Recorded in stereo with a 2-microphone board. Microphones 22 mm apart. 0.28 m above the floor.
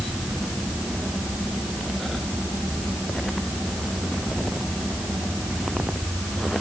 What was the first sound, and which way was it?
Only background noise.